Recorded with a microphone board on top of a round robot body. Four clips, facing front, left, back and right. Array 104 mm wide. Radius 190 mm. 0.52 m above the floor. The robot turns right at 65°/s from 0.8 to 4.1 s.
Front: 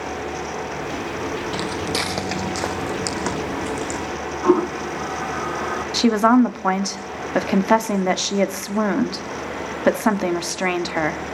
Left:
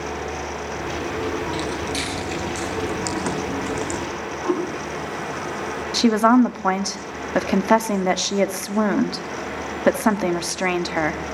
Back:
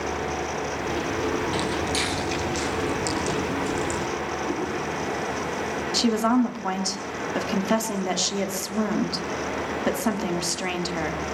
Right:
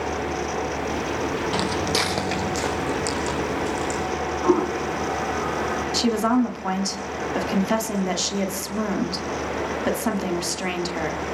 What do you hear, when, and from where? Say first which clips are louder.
1.5 s footsteps: right 2 dB, front 1 dB; 75° right, 1.6 m; by 4.0 s 75° left, 3.5 m
4.4 s a toilet flushing: right 3 dB, front 9 dB; 20° right, 3.5 m
5.9 s a woman speaking: left 6 dB, front 6 dB; 40° left, 1.6 m